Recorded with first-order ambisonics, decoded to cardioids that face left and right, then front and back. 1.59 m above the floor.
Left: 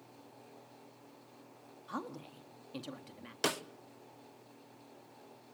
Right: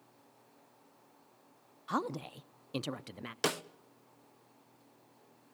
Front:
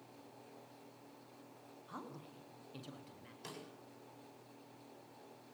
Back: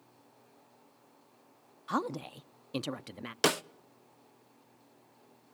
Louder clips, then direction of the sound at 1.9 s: Right 8 dB, back 17 dB; 150° right.